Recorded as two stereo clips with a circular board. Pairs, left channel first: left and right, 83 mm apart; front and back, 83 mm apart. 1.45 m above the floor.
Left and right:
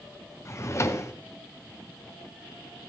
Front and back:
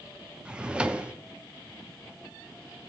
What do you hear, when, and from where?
0.5 s a drawer: 110° left, 0.6 m